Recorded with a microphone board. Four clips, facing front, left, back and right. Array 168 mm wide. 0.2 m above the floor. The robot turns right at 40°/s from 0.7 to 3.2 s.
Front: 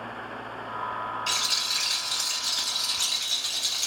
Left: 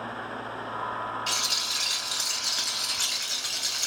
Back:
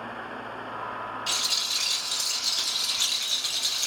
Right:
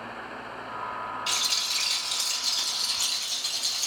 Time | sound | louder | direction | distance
1.3 | a rattle | left 1 dB, front 2 dB | 10° left | 1.3 m